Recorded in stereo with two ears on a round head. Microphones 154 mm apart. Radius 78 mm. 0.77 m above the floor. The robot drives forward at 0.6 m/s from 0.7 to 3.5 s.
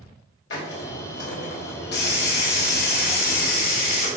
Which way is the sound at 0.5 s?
75° left (ahead or behind).